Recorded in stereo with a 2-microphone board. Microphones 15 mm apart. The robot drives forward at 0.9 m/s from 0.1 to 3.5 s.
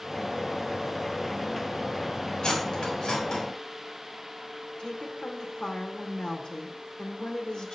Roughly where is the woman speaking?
Left.